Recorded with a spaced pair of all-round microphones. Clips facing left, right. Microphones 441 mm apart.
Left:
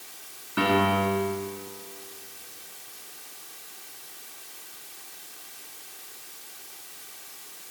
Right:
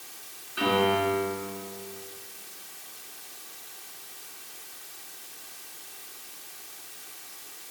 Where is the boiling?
No boiling in this recording.